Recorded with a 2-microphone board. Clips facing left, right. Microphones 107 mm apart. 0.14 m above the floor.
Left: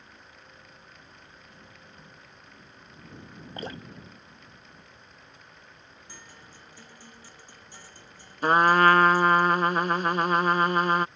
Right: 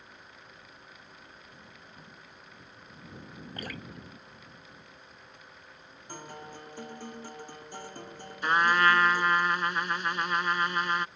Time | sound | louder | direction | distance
3.6 | dripping | left 4 dB | 25° left (ahead or behind) | ?
6.1 | a guitar | right 11 dB | 50° right (ahead or behind) | ?
8.4 | a trumpet | left 5 dB | 40° left (ahead or behind) | ?